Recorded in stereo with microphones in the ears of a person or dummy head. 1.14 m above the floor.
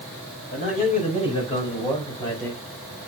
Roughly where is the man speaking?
Left.